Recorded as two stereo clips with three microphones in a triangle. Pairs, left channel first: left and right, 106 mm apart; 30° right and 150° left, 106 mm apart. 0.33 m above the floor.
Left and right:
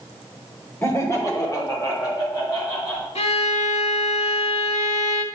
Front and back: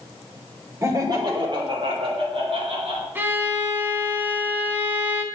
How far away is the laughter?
About 1.2 m.